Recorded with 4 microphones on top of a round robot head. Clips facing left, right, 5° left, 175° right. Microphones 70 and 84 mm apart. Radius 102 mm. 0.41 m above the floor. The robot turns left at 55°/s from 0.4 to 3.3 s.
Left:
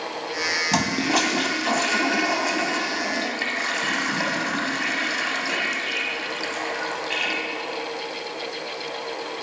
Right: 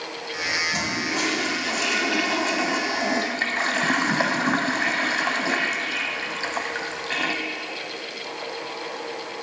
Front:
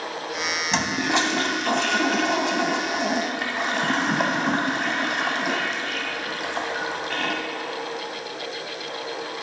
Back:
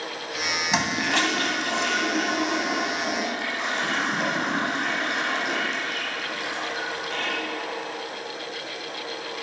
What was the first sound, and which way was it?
A toilet flushing, 100° left.